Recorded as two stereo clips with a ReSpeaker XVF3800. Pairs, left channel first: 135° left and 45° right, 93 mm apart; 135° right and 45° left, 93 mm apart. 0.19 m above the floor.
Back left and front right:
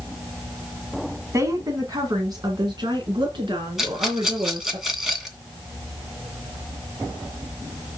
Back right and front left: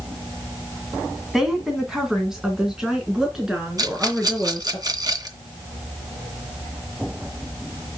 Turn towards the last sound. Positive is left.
turn(degrees=40)